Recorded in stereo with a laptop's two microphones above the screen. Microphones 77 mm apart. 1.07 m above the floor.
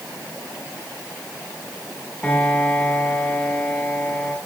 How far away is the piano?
About 3 m.